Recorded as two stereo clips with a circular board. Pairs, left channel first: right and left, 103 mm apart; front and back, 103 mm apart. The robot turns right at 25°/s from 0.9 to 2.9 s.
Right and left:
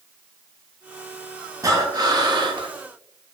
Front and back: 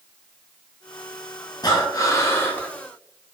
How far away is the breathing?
About 0.5 m.